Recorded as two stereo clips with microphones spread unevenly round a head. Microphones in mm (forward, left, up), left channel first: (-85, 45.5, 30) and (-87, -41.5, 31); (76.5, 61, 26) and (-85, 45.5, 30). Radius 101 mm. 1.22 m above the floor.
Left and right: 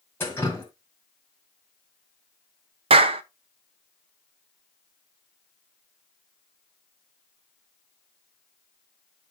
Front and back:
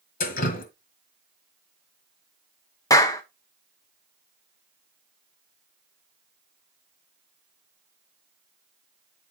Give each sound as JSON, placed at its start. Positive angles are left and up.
{"t": 0.2, "sound": "dripping", "azimuth_deg": 15, "distance_m": 1.5}
{"t": 2.9, "sound": "a clap", "azimuth_deg": -70, "distance_m": 0.6}